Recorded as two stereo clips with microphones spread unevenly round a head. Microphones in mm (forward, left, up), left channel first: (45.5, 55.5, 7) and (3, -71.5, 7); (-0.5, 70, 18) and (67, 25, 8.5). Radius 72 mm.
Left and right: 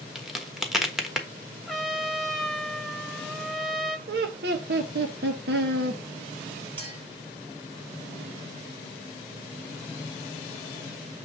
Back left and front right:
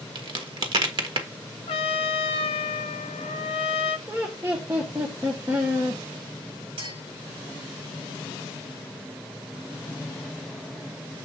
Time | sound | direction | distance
0.1 | a crack | 20° right | 1.3 m
1.7 | a trumpet | 160° left | 0.6 m
4.1 | laughter | 110° right | 0.9 m
6.8 | a clink | 60° right | 5.5 m